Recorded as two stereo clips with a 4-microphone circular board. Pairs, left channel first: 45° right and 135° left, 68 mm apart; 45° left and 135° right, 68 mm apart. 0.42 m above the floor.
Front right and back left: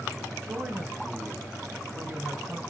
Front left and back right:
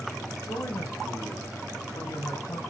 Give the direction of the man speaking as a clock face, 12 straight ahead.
9 o'clock.